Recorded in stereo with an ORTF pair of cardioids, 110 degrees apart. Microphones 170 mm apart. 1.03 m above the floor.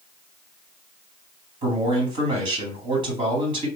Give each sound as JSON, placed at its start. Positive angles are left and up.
{"t": 1.6, "sound": "a man speaking", "azimuth_deg": -30, "distance_m": 2.5}